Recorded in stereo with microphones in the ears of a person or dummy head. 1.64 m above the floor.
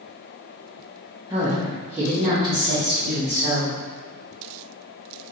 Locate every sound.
1.3 s a woman speaking: 15° right (ahead or behind), 0.8 m; by 3.8 s 35° right (ahead or behind), 2.5 m